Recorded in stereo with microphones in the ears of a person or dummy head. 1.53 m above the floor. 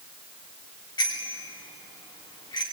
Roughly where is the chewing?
I don't hear chewing.